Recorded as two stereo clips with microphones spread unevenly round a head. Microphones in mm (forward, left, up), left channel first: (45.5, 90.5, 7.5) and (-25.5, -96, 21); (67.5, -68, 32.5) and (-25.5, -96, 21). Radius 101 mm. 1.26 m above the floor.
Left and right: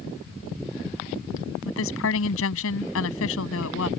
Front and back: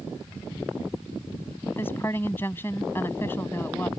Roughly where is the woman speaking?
Left.